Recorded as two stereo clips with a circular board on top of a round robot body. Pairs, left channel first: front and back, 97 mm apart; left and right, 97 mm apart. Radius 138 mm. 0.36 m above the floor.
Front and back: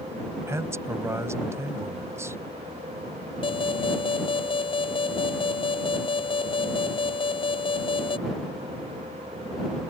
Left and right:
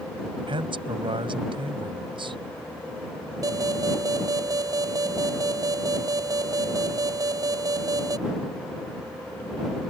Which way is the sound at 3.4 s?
35° right.